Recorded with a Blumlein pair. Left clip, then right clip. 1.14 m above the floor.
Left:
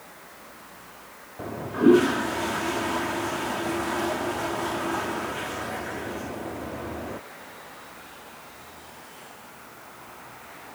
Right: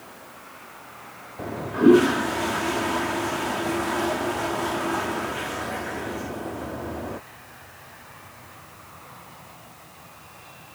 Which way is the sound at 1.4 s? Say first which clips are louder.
Right 2 dB; 5° right.